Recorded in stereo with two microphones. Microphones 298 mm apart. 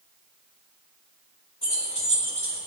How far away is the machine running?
I don't hear a machine running.